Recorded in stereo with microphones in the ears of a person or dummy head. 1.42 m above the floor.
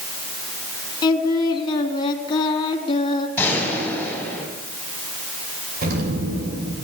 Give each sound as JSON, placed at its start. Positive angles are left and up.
{"t": 1.0, "sound": "singing", "side_deg": 30, "distance_m": 3.0}
{"t": 3.4, "sound": "a gunshot", "side_deg": 5, "distance_m": 8.5}
{"t": 5.8, "sound": "an explosion", "side_deg": -55, "distance_m": 6.5}